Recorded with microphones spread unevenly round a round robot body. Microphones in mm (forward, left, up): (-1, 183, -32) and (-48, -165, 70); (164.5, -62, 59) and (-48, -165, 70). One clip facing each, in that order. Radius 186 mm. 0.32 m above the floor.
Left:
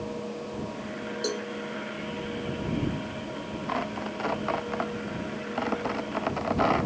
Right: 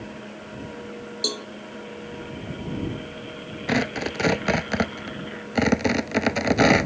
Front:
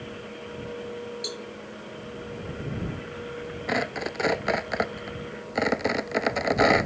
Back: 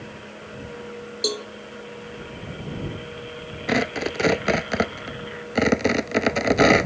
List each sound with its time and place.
1.2 s a cowbell: 140° right
3.7 s tearing paper: 100° right